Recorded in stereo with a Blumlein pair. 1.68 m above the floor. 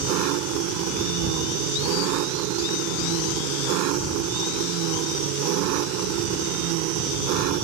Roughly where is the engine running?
Ahead right.